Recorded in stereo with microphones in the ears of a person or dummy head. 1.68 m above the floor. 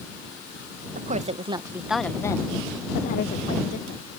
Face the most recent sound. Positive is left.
turn(degrees=65)  # may be behind; listen again after turning